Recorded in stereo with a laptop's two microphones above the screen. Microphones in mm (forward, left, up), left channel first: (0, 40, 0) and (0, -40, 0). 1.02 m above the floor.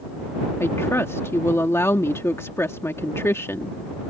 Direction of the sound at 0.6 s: 35° left (ahead or behind).